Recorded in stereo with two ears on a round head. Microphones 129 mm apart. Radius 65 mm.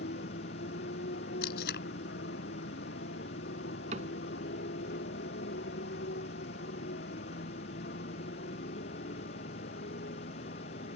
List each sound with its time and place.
0.0 s a motorcycle: 75° left (ahead or behind)
1.4 s tape being pulled: 75° left (ahead or behind)
3.9 s a cupboard door: 50° right (ahead or behind)